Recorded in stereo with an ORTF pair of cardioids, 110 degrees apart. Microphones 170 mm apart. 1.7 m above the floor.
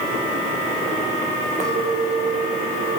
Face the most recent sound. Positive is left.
turn(degrees=-45)